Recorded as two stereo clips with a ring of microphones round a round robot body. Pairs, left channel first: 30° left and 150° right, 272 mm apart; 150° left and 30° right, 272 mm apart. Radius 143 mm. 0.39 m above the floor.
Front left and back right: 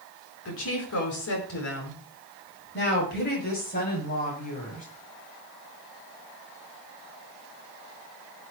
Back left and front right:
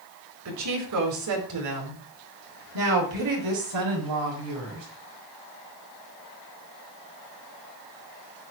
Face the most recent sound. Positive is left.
turn(degrees=-30)